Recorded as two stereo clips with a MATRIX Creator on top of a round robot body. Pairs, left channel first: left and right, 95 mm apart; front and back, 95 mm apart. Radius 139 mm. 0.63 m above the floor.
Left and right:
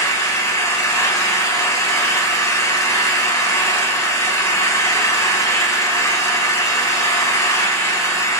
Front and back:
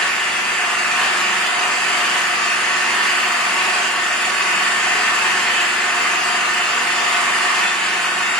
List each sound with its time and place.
0.0 s an engine running: 75° left, 1.0 m